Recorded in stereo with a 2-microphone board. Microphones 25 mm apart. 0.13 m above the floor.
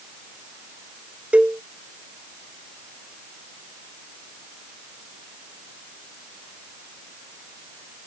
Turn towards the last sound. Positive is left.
turn(degrees=-55)  # may be behind; listen again after turning